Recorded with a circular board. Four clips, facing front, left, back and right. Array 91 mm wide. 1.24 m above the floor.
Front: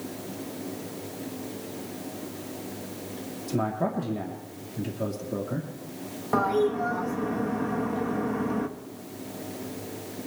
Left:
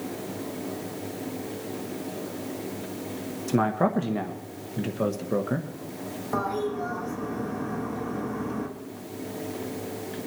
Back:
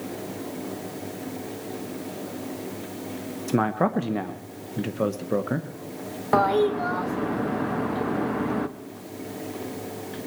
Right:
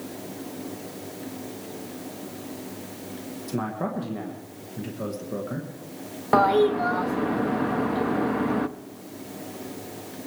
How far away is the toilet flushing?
About 0.7 m.